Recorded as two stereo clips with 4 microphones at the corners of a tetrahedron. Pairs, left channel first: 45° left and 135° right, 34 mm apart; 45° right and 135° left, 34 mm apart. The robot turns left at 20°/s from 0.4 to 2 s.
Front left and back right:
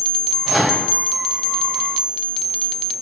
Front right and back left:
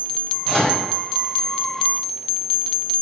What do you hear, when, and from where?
0.5 s a microwave: 65° right, 1.1 m; by 0.8 s 70° right, 1.1 m